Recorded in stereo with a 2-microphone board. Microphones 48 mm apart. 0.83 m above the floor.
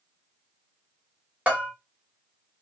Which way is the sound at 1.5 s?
25° right (ahead or behind).